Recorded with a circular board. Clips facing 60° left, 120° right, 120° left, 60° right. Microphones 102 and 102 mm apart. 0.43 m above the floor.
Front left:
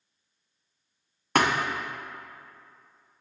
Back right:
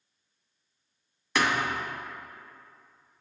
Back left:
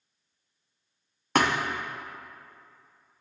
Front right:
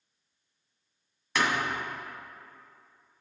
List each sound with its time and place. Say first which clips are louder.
1.4 s a thud: front left 3 dB, back left 4 dB; 90° left, 0.6 m